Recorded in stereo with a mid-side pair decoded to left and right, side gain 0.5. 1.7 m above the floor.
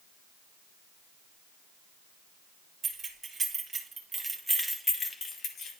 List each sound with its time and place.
2.8 s keys jangling: 40° right, 2.5 m; by 5.7 s 75° left, 1.2 m